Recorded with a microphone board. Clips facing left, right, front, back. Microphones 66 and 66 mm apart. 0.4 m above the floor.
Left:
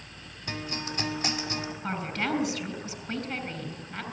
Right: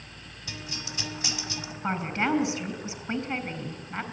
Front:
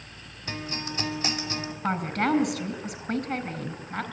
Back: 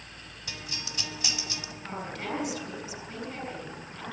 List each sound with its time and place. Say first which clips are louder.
0.5 s a guitar: left 5 dB, front 8 dB; 50° left, 2 m
1.8 s a woman speaking: right 5 dB, front 10 dB; 30° right, 4.5 m